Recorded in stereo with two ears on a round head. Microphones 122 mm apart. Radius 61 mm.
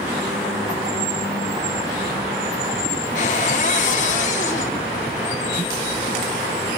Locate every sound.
3.1 s a cupboard door: 60° left (ahead or behind), 1.9 m